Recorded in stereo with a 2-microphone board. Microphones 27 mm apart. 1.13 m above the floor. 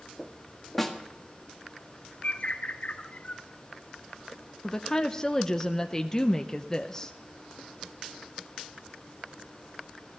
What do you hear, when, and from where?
0.8 s a snare drum: 5° left (ahead or behind), 1.6 m
2.2 s a bird: 60° left (ahead or behind), 1.1 m
4.6 s a woman speaking: 20° left (ahead or behind), 0.6 m